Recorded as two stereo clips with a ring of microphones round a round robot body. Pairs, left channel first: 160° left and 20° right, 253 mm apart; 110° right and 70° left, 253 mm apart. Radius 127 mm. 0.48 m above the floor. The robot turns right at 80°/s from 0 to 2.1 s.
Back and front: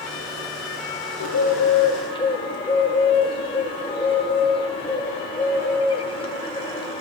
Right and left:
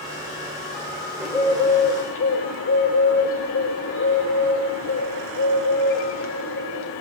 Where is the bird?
150° left, 1.8 m; by 7.0 s 135° right, 1.8 m.